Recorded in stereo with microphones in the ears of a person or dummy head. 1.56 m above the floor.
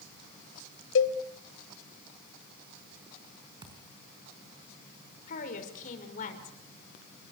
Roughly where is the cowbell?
Left.